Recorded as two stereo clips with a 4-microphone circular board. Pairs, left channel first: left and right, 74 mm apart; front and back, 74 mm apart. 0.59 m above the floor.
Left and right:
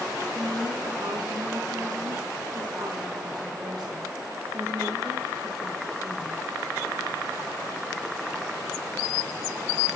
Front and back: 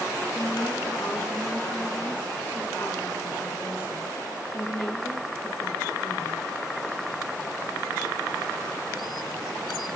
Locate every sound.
0.3 s a woman speaking: 65° right, 8.5 m